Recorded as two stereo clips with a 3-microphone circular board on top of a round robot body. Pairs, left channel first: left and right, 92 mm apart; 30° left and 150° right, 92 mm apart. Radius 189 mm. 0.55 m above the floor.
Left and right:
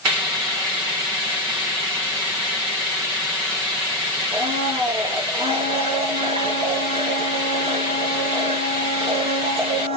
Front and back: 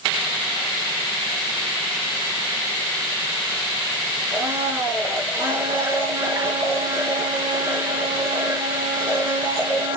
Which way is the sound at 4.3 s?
85° right.